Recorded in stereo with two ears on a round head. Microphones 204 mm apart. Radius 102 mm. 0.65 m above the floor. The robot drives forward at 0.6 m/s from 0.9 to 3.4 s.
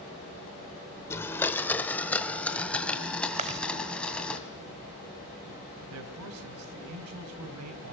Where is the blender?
10° left (ahead or behind), 0.9 m; by 4.4 s 5° left (ahead or behind), 2 m.